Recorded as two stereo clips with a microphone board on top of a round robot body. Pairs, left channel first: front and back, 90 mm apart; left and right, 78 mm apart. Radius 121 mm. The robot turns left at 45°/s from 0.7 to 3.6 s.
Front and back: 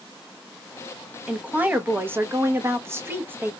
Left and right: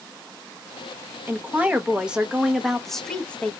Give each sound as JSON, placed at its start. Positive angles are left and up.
{"t": 1.3, "sound": "a woman speaking", "azimuth_deg": -120, "distance_m": 0.8}